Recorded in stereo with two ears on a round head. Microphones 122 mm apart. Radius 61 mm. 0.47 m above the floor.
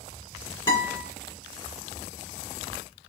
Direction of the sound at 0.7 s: 30° left (ahead or behind).